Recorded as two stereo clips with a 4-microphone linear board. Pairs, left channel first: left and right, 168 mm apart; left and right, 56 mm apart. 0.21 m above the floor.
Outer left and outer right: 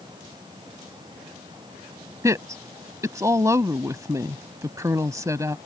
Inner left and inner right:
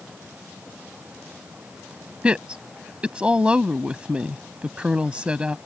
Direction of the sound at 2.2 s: 20° right (ahead or behind).